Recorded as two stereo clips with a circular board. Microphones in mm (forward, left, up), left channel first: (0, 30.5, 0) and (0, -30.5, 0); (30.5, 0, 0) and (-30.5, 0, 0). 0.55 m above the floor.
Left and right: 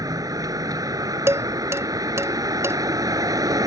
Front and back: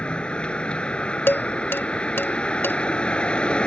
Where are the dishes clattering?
50° right.